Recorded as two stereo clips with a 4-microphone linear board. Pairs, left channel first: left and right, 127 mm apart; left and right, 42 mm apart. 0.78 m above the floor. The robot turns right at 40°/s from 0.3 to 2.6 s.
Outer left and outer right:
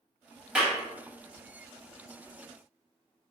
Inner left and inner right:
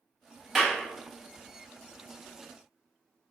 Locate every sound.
0.6 s a clap: 10° right (ahead or behind), 0.8 m; by 0.8 s 5° right (ahead or behind), 0.8 m